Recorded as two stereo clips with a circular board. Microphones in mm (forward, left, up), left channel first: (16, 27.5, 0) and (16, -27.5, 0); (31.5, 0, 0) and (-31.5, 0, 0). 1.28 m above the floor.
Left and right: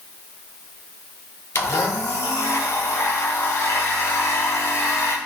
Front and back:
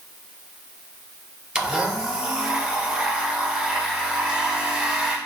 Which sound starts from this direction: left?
A blender, at 1.6 s.